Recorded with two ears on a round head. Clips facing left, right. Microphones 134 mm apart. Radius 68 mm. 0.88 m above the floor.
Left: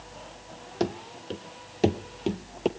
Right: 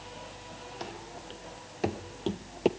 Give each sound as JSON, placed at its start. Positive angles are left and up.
{"t": 0.8, "sound": "running footsteps", "side_deg": 60, "distance_m": 1.6}